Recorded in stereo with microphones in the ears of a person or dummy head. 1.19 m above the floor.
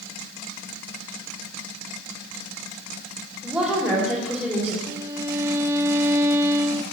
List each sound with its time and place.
3.4 s a woman speaking: 10° right (ahead or behind), 3.5 m
4.9 s a violin: 15° right (ahead or behind), 0.6 m